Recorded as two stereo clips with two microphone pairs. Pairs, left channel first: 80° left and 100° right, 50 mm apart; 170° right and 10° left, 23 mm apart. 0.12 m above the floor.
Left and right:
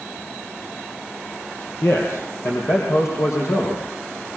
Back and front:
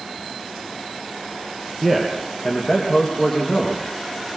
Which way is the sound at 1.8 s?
95° left.